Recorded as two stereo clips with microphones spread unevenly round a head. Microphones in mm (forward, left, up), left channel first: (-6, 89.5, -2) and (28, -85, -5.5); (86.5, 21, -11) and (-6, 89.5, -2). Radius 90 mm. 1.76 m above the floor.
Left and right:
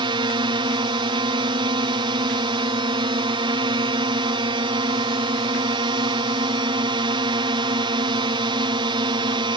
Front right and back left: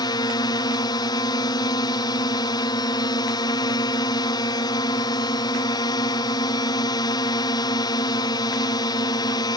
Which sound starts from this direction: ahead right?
A drone, at 0.0 s.